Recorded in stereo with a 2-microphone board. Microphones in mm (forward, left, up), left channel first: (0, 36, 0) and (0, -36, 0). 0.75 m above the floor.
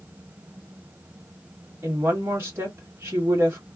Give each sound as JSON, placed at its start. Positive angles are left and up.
{"t": 1.8, "sound": "a woman speaking", "side_deg": -35, "distance_m": 1.4}